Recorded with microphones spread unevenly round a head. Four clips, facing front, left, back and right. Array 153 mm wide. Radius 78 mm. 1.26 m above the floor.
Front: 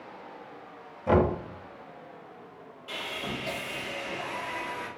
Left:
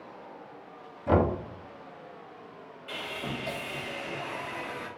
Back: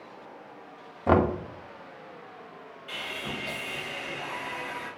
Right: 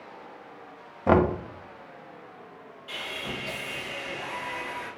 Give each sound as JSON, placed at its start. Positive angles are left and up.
{"t": 1.1, "sound": "knocking", "azimuth_deg": -120, "distance_m": 0.7}
{"t": 2.9, "sound": "sawing", "azimuth_deg": 60, "distance_m": 1.3}